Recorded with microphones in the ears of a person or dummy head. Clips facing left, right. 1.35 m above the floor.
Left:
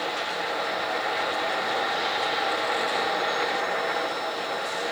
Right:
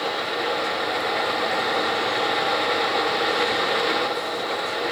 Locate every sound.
Only background noise.